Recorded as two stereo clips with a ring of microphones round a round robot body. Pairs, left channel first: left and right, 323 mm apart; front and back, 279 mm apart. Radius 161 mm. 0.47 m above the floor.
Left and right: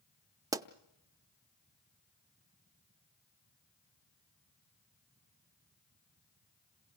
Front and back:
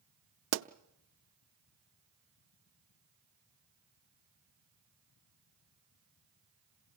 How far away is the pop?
About 0.5 m.